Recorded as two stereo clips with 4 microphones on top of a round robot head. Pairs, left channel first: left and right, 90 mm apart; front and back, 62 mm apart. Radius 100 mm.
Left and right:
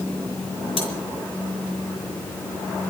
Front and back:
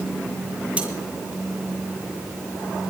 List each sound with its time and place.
0.8 s cutlery clinking: 110° left, 7.5 m